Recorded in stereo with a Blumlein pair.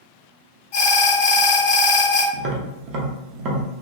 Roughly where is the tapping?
Ahead right.